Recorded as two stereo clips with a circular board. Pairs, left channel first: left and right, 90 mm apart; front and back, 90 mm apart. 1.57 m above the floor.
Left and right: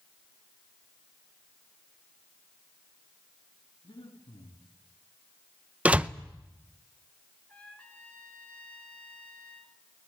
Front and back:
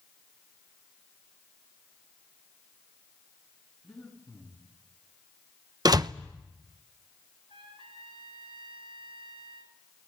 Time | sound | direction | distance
3.8 | breathing | 85° left | 8.5 m
5.8 | a door slam | 160° right | 0.8 m
7.5 | a trumpet | 165° left | 5 m